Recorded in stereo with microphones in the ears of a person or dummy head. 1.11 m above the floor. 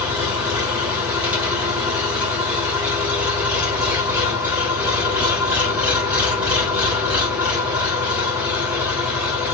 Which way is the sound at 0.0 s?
5° right (ahead or behind).